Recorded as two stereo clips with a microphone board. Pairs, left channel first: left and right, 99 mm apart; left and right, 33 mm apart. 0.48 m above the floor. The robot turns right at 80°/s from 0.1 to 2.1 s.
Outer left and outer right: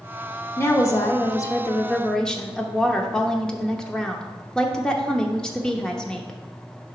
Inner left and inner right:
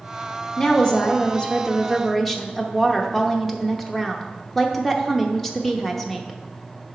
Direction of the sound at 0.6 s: 45° left.